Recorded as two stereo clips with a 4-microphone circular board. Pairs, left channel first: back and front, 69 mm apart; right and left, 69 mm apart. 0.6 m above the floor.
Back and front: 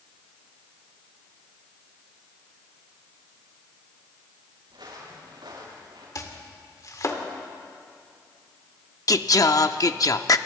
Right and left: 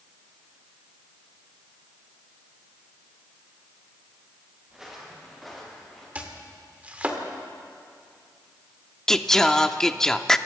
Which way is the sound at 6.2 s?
155° left.